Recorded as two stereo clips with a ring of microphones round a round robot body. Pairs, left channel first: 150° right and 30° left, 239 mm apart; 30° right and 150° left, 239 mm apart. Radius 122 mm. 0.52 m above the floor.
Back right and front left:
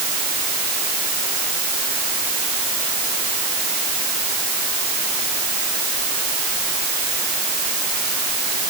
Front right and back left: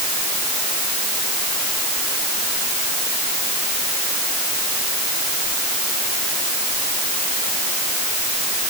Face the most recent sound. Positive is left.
No sound to turn to.